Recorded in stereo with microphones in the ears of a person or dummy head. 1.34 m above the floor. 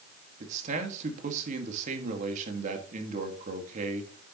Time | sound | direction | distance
0.4 | a man speaking | 40° right (ahead or behind) | 2.0 m